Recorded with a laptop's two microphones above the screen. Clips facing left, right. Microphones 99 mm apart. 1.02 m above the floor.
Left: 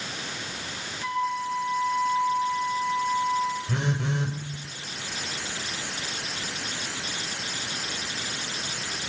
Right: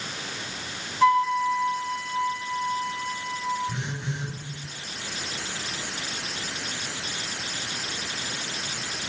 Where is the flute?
85° right, 5 m.